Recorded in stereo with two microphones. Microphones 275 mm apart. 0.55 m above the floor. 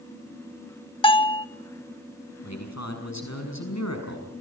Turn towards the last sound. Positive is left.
turn(degrees=65)  # may be behind; listen again after turning